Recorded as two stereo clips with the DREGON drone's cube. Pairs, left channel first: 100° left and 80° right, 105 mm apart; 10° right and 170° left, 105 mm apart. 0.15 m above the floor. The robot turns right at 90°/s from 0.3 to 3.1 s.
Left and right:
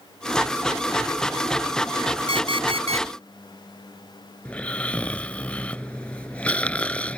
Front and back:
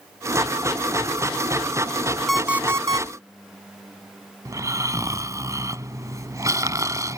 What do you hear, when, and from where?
2.3 s an alarm clock: 75° left; by 3.1 s 145° left
4.5 s snoring: 165° left